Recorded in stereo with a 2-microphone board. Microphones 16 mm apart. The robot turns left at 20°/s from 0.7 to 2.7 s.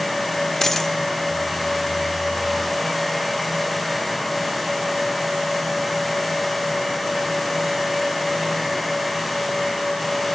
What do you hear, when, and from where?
0.6 s a dropped coin: 25° left (ahead or behind), 0.8 m; by 0.9 s 30° left (ahead or behind), 0.8 m